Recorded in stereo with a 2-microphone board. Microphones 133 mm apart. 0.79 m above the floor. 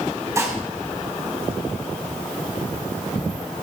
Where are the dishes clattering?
20° right (ahead or behind), 4 m.